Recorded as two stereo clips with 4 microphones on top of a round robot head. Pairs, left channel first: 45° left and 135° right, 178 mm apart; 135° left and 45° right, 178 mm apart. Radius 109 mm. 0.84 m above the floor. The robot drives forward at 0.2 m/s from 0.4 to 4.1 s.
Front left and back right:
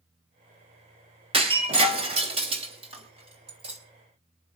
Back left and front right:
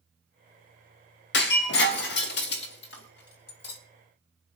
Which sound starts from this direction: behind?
Breaking glass, at 1.3 s.